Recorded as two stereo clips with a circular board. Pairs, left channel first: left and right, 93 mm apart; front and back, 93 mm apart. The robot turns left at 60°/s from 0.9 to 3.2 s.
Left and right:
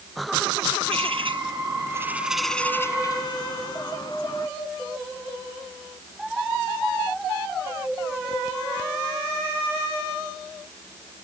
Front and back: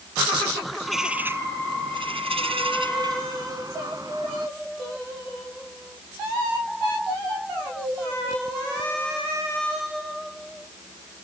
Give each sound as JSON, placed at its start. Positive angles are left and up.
{"t": 0.8, "sound": "a bird", "azimuth_deg": -90}